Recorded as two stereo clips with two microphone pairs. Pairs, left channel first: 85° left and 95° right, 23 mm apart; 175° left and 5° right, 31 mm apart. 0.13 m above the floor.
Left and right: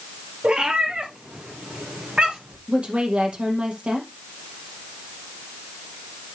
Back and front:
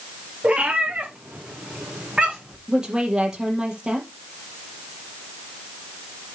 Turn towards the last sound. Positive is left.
turn(degrees=-70)